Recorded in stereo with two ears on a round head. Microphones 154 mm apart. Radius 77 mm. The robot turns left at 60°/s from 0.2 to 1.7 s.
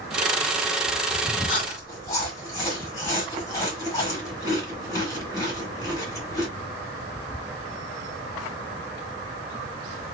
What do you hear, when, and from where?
1.5 s chewing: 35° left (ahead or behind), 1.2 m; by 6.5 s 20° left (ahead or behind), 1.2 m